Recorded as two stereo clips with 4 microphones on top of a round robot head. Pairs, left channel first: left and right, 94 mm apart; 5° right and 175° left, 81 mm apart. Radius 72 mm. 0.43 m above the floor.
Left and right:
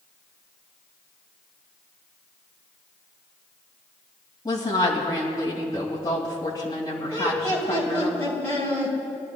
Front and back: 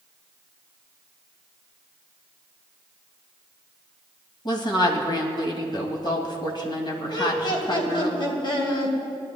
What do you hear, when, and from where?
4.5 s a woman speaking: 25° left, 2.5 m
7.1 s laughter: 20° left, 3 m